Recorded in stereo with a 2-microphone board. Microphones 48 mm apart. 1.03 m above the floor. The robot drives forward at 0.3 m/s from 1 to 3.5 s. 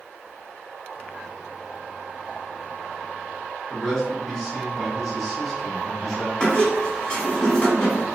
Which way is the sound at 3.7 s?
Centre (ahead or behind).